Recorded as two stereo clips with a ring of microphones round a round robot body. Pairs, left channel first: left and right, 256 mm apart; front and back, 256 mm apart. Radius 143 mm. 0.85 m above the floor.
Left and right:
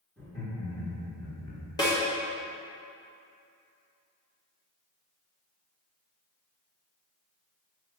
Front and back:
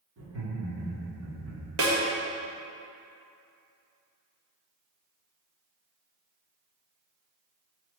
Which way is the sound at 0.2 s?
175° left.